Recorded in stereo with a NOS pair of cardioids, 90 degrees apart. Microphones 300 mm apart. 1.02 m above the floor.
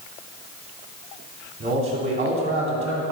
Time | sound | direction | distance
1.6 | a man speaking | 45° right | 2 m